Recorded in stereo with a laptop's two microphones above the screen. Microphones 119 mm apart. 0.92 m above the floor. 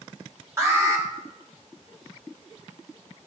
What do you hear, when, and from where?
0.6 s an alarm: 25° right (ahead or behind), 1.1 m